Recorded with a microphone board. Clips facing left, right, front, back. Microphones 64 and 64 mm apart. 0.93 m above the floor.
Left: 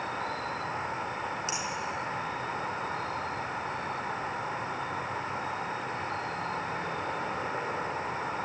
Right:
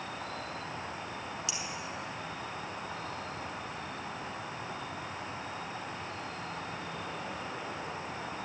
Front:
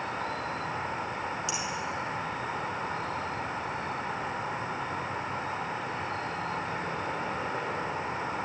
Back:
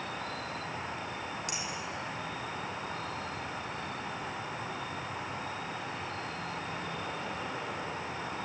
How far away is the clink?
About 6 m.